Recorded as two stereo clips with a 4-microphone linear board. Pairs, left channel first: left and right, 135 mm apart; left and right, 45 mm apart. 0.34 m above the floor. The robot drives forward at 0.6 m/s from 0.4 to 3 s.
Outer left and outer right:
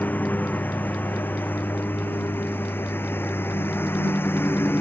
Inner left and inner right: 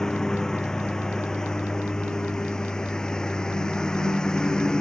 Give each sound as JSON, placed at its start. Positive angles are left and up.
{"t": 0.0, "sound": "a lawn mower", "side_deg": 10}